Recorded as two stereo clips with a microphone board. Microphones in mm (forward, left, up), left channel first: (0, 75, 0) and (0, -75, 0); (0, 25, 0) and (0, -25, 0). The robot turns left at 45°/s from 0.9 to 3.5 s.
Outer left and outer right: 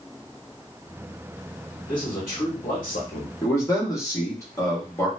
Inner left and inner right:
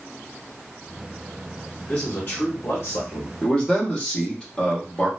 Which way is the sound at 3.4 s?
20° left (ahead or behind).